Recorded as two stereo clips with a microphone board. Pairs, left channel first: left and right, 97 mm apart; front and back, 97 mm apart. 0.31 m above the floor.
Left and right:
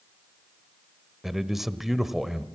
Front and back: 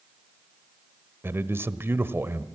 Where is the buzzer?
I don't hear a buzzer.